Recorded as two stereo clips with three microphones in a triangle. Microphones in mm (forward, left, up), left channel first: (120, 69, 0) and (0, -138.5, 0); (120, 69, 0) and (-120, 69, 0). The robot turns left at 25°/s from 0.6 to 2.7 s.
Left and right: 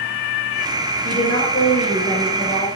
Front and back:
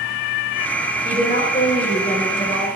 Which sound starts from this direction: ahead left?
A woman speaking, at 1.0 s.